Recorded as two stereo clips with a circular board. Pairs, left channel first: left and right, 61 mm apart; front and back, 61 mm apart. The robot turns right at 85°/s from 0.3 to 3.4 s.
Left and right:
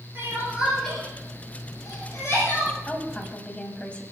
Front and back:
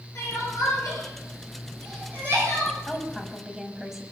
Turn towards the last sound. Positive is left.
turn(degrees=110)